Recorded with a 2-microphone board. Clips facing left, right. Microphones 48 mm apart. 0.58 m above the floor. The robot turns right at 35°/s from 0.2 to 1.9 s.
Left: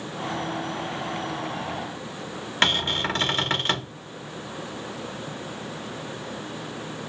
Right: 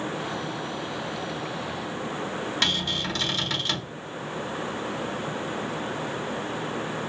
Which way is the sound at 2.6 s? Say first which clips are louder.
Left 6 dB; 35° left (ahead or behind).